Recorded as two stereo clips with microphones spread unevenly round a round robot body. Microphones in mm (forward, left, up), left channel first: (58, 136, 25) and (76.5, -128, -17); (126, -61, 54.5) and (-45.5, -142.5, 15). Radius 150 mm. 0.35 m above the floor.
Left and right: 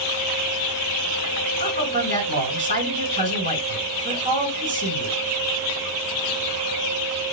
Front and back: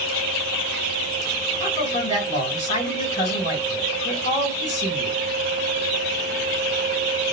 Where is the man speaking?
30° right, 3.5 m.